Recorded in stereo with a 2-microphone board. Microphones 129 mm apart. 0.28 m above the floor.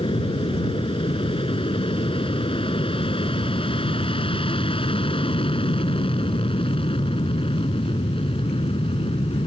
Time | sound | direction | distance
0.0 | an aircraft | 40° left (ahead or behind) | ?